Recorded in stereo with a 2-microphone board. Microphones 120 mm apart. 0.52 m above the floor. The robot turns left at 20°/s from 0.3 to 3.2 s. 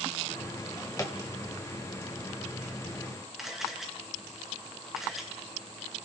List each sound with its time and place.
0.6 s a drawer: 35° left (ahead or behind), 1.3 m; by 1.2 s 25° left (ahead or behind), 1.3 m
3.4 s a camera shutter: 5° right (ahead or behind), 3 m